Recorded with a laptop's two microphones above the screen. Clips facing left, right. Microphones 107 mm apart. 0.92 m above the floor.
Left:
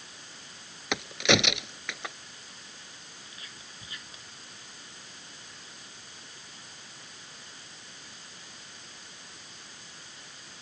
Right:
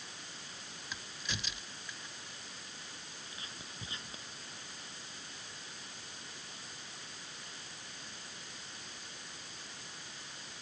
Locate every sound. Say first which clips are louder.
0.9 s a crack: left 20 dB; 80° left
3.3 s whispering: right 1 dB; 30° right (ahead or behind)